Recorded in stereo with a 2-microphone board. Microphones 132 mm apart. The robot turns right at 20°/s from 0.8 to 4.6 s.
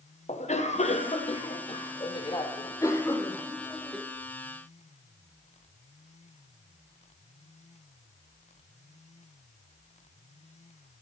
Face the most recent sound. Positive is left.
turn(degrees=-170)